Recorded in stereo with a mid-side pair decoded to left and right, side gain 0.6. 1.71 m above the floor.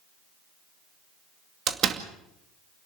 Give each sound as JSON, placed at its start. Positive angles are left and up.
{"t": 1.7, "sound": "a door slam", "azimuth_deg": -50, "distance_m": 2.5}